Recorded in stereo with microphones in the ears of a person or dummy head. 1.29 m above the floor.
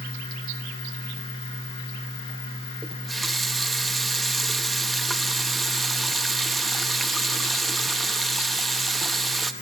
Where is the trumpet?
No trumpet in this recording.